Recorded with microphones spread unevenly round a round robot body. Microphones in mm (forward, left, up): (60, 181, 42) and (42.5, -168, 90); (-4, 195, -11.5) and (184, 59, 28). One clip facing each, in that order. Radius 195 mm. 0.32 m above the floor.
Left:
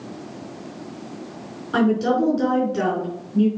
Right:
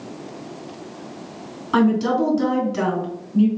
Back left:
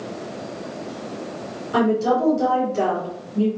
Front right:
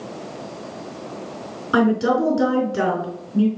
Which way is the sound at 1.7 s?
35° right.